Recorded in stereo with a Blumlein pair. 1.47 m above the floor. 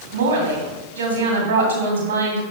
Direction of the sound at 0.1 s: 60° right.